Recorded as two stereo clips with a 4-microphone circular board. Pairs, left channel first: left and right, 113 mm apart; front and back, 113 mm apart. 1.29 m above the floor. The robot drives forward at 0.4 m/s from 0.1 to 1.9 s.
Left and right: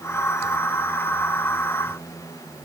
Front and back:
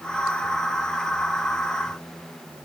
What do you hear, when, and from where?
Only background noise.